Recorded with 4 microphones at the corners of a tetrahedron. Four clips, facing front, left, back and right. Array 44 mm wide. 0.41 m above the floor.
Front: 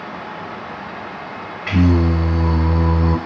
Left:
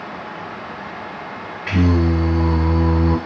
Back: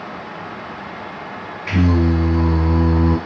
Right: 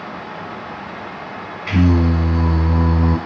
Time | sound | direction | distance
1.7 | singing | 25° left | 1.5 m